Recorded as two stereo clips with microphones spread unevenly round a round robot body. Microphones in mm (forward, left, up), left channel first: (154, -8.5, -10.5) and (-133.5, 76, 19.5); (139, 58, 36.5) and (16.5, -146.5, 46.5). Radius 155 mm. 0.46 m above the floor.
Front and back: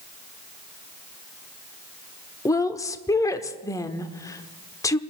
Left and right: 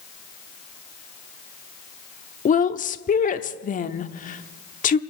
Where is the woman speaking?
45° left, 0.8 m.